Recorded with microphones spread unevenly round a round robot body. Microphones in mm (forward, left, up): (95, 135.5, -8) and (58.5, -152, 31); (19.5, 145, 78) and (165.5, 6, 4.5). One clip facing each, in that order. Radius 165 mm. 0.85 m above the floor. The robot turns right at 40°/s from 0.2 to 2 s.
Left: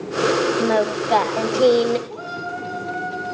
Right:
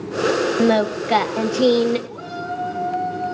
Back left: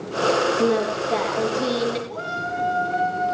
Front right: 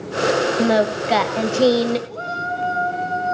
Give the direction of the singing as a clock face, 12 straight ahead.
3 o'clock.